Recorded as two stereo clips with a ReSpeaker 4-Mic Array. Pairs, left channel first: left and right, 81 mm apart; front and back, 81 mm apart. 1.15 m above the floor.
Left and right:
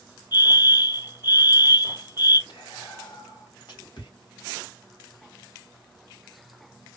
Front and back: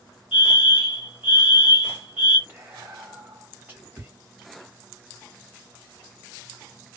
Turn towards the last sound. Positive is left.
turn(degrees=115)